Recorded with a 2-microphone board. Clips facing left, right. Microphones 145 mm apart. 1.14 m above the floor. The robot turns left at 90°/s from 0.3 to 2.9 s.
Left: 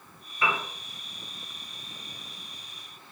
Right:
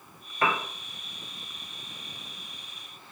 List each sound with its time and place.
0.4 s a piano: 60° right (ahead or behind), 0.6 m; by 0.6 s 45° right (ahead or behind), 0.6 m